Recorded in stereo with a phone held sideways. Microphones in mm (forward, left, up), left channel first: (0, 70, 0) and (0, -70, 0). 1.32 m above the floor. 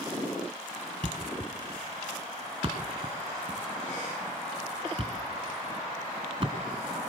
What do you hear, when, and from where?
1.0 s a thud: 40° right (ahead or behind), 2.5 m